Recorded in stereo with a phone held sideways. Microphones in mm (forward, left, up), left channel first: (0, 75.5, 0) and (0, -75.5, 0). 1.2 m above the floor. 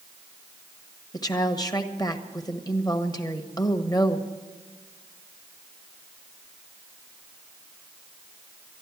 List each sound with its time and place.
1.1 s a woman speaking: 25° left (ahead or behind), 1.1 m